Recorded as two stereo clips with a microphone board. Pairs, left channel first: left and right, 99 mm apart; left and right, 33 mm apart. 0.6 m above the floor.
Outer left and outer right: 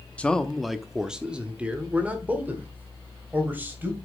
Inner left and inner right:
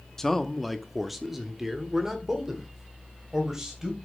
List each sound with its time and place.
0.2 s a man speaking: 15° left (ahead or behind), 0.6 m; by 4.0 s 20° right (ahead or behind), 2.5 m